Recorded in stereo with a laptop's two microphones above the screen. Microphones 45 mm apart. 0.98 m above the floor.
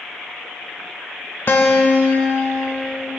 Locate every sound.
1.5 s a guitar: 55° left (ahead or behind), 1.2 m